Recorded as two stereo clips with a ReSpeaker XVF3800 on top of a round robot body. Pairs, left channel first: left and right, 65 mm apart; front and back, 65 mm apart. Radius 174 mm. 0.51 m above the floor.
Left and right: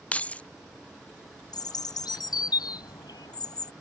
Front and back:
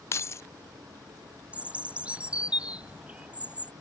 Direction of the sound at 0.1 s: 25° left.